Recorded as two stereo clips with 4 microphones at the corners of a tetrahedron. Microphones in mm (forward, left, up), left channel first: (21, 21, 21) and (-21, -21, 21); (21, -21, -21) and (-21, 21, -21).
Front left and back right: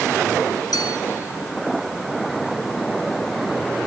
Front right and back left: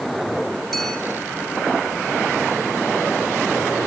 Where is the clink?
45° left, 4 m.